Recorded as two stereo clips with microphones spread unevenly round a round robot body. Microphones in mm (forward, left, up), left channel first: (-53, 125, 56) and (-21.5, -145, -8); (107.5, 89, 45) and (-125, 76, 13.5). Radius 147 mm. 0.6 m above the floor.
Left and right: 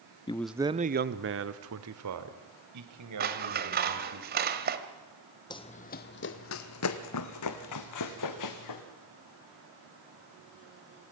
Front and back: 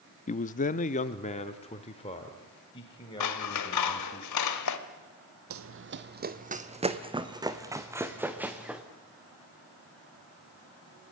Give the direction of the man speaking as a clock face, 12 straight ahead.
11 o'clock.